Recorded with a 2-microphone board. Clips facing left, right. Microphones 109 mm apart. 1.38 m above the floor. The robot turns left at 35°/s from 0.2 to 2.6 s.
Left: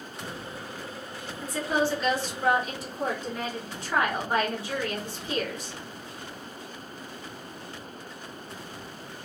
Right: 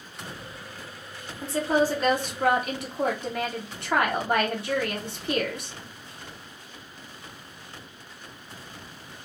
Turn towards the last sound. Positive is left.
turn(degrees=-65)